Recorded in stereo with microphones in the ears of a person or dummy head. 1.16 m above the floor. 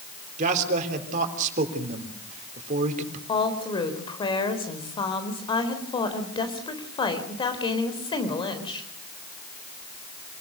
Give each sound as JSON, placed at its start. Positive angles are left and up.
{"t": 0.4, "sound": "a man speaking", "side_deg": -40, "distance_m": 3.5}
{"t": 3.3, "sound": "a woman speaking", "side_deg": 25, "distance_m": 3.5}